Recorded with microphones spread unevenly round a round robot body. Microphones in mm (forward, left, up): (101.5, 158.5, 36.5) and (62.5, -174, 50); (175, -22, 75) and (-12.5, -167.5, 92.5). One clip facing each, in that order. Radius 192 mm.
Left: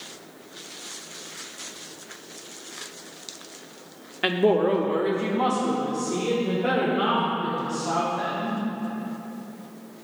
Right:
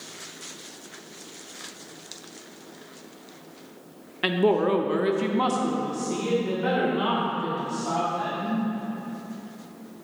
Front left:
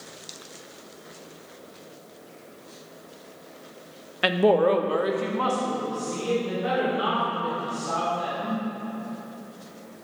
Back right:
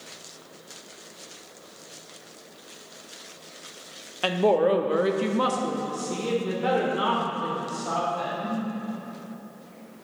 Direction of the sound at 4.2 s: 15° right.